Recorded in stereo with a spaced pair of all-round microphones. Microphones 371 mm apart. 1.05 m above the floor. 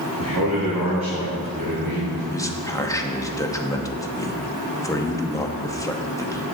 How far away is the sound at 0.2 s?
About 2.5 m.